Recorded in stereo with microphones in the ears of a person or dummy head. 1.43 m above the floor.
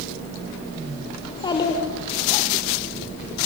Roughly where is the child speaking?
Left.